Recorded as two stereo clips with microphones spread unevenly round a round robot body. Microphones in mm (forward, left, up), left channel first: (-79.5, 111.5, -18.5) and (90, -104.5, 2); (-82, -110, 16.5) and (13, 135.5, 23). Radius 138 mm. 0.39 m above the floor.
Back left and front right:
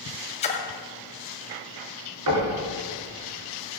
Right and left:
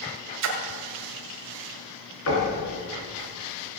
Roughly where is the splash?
Ahead left.